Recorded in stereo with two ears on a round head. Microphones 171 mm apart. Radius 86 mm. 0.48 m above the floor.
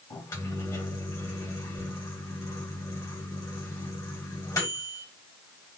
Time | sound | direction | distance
0.1 | a microwave | 20° left (ahead or behind) | 1.9 m